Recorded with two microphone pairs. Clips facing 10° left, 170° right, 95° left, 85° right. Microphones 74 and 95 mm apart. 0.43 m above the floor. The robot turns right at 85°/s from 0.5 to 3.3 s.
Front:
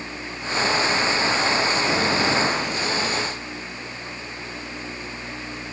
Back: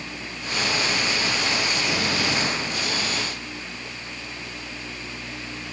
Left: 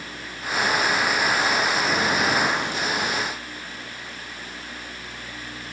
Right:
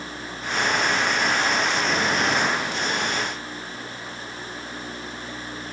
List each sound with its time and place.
Only background noise.